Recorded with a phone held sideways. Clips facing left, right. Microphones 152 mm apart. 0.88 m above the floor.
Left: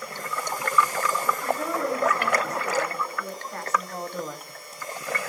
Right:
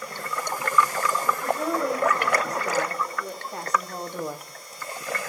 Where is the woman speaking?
20° right (ahead or behind), 3 m; by 4.4 s 15° right (ahead or behind), 1.0 m.